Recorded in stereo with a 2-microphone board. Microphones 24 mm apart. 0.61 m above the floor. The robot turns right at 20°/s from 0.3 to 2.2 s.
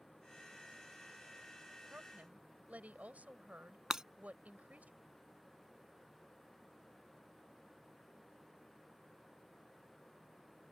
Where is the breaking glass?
25° right (ahead or behind).